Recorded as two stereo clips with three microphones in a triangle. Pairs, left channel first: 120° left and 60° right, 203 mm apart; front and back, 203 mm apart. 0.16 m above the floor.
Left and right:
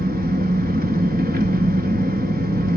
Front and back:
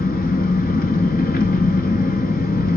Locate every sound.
0.0 s an engine running: 30° right, 0.8 m